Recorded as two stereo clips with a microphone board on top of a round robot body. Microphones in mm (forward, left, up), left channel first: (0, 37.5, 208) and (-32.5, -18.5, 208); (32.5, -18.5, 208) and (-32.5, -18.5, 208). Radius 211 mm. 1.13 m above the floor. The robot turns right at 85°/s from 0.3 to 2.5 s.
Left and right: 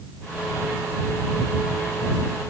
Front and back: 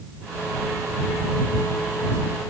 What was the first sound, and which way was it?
Only background noise.